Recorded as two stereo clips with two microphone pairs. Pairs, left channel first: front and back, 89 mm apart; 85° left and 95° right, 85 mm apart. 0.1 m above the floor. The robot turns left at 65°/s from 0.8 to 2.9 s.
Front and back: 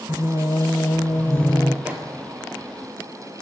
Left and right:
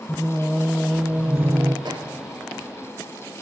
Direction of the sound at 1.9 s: 105° right.